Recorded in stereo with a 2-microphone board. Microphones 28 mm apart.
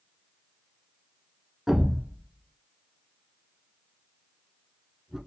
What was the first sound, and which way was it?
A thud, 15° right (ahead or behind).